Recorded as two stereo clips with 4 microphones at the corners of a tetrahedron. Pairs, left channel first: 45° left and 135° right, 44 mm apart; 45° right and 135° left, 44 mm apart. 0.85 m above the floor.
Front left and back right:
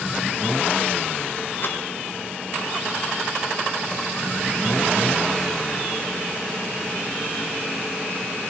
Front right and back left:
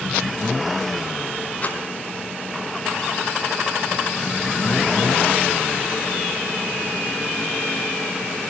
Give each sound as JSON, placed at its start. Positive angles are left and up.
{"t": 1.6, "sound": "a rattle", "azimuth_deg": 10, "distance_m": 4.5}